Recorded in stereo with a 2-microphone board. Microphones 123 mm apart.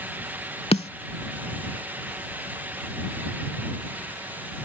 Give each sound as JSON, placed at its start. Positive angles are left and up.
{"t": 0.7, "sound": "a snare drum", "side_deg": 60}